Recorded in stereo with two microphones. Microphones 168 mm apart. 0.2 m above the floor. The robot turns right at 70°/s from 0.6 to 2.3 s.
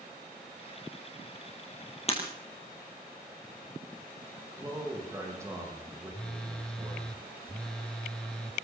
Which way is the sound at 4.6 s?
15° right (ahead or behind).